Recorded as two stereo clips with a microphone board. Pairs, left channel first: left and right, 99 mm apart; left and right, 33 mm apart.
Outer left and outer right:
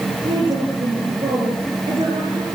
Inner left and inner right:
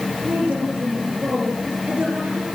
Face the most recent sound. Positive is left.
turn(degrees=-60)  # may be behind; listen again after turning